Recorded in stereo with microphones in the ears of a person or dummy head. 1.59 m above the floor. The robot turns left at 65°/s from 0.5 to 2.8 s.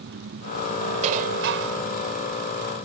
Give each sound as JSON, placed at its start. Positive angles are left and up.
{"t": 0.0, "sound": "an engine running", "azimuth_deg": -60}
{"t": 1.0, "sound": "dishes clattering", "azimuth_deg": -40}